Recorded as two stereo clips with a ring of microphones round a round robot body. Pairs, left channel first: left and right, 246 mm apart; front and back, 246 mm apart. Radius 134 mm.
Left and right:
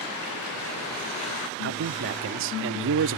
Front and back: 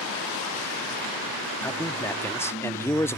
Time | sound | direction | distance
1.6 | a man speaking | 80° right | ?